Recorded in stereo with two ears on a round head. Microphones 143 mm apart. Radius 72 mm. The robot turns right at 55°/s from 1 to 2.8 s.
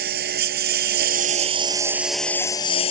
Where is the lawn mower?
65° right; by 2.9 s 35° left.